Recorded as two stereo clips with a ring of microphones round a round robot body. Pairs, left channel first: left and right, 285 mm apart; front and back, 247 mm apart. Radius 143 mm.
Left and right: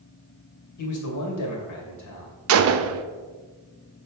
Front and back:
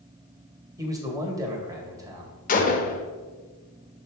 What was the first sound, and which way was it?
A man speaking, 105° left.